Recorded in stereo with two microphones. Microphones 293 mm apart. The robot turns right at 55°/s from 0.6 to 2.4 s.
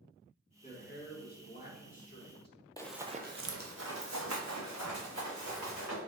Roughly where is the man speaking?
Ahead left.